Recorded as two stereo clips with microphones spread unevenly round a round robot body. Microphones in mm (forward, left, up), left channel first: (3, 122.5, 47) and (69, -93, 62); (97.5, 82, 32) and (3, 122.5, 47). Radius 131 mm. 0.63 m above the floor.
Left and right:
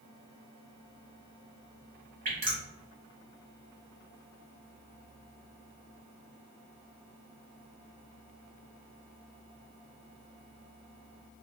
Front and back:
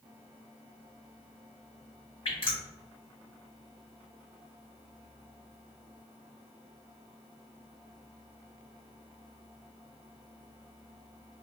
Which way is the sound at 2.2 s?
20° right.